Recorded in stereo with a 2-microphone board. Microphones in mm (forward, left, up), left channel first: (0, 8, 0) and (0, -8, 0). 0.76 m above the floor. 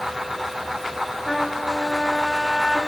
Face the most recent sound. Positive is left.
turn(degrees=15)  # may be behind; listen again after turning